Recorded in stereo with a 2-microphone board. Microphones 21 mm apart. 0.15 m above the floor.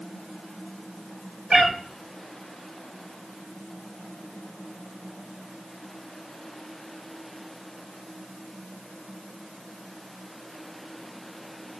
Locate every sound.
1.5 s a cat meowing: 20° right (ahead or behind), 2.5 m